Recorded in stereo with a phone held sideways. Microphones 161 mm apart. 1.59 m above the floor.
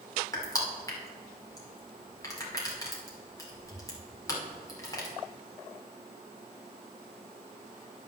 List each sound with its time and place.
0.3 s crushing: 20° left (ahead or behind), 2 m